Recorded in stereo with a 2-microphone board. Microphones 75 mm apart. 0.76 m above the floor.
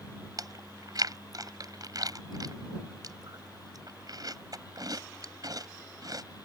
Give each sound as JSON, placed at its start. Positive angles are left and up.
{"t": 0.4, "sound": "chewing", "side_deg": -55}